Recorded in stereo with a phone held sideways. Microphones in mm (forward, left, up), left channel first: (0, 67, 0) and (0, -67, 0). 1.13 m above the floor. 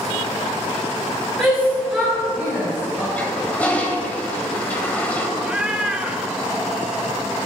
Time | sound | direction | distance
1.4 | a shout | 5° left (ahead or behind) | 3 m
3.2 | a toilet flushing | 15° left (ahead or behind) | 1.7 m
5.4 | a cat meowing | 10° right (ahead or behind) | 0.8 m